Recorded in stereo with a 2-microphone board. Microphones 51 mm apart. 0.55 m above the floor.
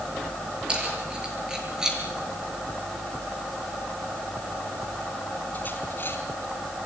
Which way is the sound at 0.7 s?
20° right (ahead or behind).